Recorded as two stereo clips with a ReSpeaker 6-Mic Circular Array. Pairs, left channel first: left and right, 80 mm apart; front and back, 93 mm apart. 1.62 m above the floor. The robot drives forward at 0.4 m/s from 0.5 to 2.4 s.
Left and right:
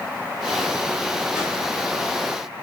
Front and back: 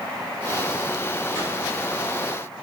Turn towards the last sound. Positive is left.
turn(degrees=-170)